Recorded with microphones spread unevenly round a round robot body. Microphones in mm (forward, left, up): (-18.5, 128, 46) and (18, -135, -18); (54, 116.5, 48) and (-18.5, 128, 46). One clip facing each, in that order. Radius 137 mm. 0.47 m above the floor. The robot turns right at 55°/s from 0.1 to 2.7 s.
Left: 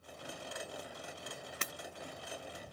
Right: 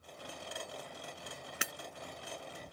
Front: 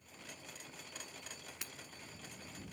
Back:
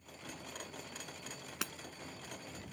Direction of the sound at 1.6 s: 165° right.